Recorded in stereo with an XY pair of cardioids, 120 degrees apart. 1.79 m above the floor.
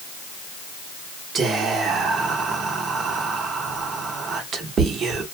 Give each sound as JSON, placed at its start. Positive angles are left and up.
{"t": 1.4, "sound": "whispering", "azimuth_deg": -50, "distance_m": 1.0}